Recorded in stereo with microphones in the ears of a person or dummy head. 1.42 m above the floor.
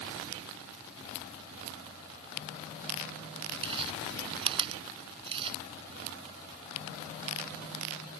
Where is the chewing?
25° right (ahead or behind).